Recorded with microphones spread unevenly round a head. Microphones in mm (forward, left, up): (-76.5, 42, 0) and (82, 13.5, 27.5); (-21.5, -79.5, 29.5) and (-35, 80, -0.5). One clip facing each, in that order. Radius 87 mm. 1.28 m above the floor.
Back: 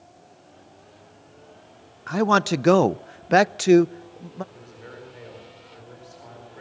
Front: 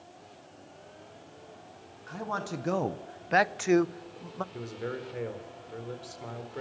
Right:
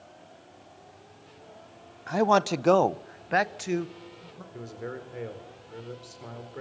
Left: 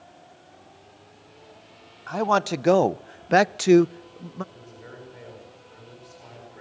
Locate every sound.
2.1 s a man speaking: 160° right, 0.7 m; by 4.4 s 95° left, 0.8 m
4.5 s a man speaking: 50° right, 4 m